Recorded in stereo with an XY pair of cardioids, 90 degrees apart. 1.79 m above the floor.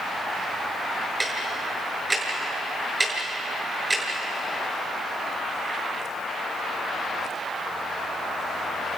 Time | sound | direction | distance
1.2 | ticking | 30° right | 8 m